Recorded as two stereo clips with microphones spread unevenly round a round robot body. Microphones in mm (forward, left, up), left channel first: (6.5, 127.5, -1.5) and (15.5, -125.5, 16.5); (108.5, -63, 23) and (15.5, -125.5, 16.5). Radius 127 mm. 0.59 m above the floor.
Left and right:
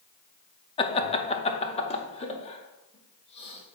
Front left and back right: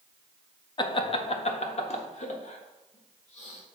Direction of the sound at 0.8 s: 45° left.